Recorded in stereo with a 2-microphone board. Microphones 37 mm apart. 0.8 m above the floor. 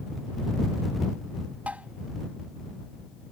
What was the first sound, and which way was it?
Tapping, 40° right (ahead or behind).